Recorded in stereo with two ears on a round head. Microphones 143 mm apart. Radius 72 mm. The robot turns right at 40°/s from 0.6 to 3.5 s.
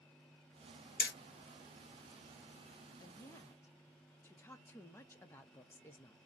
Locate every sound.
1.0 s hammering: 60° left (ahead or behind), 0.9 m; by 1.1 s 65° left (ahead or behind), 0.9 m
3.0 s a woman speaking: 25° left (ahead or behind), 0.5 m; by 6.2 s 15° left (ahead or behind), 0.5 m